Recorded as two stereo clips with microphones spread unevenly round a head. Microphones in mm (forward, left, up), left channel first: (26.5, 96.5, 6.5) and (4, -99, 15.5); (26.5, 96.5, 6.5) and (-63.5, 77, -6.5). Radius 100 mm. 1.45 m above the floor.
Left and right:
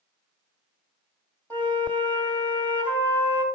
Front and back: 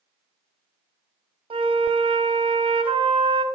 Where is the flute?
165° left, 2.5 m.